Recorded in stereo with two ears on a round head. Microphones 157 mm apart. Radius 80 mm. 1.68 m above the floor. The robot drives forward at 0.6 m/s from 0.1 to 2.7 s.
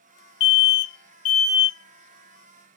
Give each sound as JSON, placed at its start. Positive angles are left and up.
{"t": 0.4, "sound": "an alarm", "side_deg": 75, "distance_m": 0.5}